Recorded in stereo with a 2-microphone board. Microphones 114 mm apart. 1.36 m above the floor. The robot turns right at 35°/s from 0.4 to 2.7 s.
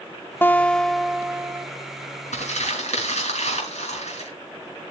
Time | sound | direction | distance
0.4 | a guitar | 160° left | 0.6 m
2.3 | crumpling | 80° left | 5.5 m